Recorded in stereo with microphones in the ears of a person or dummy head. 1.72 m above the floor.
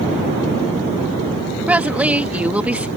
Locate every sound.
1.7 s a woman speaking: 10° right (ahead or behind)